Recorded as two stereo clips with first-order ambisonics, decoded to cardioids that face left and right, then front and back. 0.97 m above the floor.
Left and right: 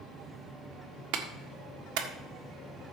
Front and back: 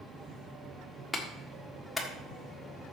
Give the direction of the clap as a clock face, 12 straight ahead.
3 o'clock.